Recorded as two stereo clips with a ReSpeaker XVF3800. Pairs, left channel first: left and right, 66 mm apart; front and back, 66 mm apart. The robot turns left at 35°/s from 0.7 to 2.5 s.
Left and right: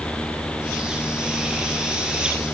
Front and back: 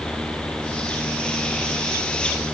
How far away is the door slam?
No door slam in this recording.